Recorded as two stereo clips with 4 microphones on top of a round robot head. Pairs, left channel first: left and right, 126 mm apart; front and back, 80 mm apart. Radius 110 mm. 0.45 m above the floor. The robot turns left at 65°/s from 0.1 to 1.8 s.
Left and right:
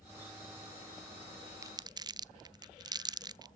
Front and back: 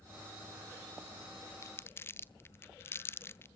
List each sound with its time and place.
1.6 s crumpling: 35° right, 0.6 m; by 3.5 s 45° right, 0.6 m